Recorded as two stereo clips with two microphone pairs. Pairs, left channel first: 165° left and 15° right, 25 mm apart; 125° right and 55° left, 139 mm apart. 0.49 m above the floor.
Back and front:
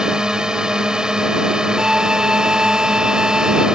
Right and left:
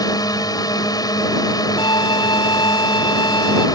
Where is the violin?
70° right.